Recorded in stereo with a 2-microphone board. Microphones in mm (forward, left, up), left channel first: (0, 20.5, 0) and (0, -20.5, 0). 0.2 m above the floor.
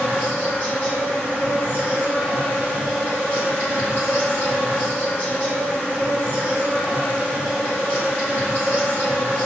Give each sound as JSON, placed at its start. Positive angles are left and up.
{"t": 0.0, "sound": "an insect", "side_deg": 45, "distance_m": 5.5}